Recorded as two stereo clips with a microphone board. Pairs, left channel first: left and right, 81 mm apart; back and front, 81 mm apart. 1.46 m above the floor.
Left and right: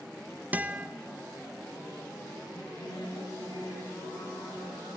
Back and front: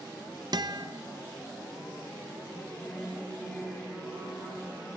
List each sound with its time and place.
0.5 s a guitar: 25° right, 0.7 m
2.5 s singing: 100° left, 8.5 m